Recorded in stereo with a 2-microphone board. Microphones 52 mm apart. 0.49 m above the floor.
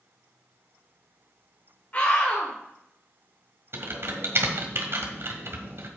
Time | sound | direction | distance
1.9 | a scream | 35° left (ahead or behind) | 1.7 m
3.7 | typing on a keyboard | 55° right (ahead or behind) | 1.7 m